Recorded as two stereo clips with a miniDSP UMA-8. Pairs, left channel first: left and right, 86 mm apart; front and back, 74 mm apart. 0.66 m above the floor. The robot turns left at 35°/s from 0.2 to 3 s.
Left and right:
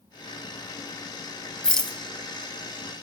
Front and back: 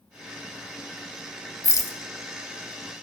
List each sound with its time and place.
1.6 s a rattle: 15° left, 0.6 m; by 2.0 s straight ahead, 0.6 m